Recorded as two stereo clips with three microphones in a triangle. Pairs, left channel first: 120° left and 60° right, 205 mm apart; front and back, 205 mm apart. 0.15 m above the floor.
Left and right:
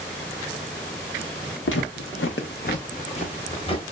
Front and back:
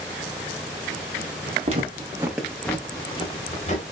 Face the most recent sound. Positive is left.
turn(degrees=55)